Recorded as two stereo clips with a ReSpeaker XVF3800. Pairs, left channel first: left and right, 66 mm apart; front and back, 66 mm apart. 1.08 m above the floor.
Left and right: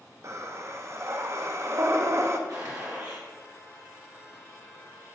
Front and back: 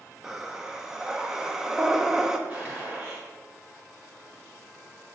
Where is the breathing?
100° right, 0.5 m.